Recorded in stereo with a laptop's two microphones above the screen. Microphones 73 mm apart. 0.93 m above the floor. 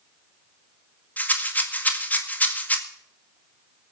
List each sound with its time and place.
1.2 s a rattle: 25° left (ahead or behind), 1.9 m